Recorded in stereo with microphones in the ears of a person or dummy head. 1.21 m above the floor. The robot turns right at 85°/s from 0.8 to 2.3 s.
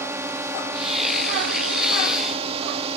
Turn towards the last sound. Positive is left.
turn(degrees=-35)